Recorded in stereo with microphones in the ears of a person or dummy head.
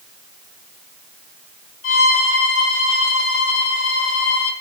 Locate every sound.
1.8 s a violin: 70° left (ahead or behind), 3 m